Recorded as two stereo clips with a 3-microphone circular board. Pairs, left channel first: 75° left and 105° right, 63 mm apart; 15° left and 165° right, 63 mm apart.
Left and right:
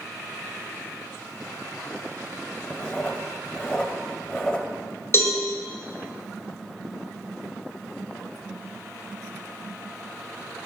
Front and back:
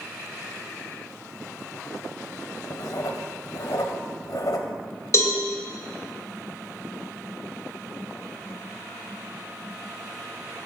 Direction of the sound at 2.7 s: Straight ahead.